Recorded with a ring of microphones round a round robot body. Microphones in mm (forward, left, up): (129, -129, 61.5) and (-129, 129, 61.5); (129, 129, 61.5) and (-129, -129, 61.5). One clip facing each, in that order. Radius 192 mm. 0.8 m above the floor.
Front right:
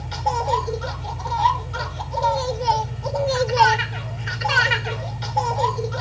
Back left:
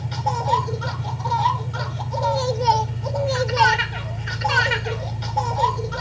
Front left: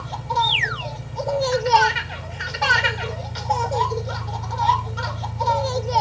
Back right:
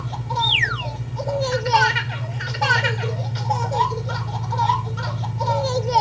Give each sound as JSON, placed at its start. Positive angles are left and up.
{"t": 0.0, "sound": "an engine running", "azimuth_deg": 175, "distance_m": 2.5}